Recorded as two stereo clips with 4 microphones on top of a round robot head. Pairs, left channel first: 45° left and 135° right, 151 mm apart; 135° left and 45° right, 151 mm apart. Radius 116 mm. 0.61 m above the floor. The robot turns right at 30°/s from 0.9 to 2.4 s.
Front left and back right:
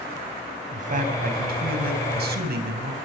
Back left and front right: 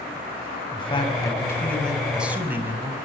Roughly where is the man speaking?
Behind.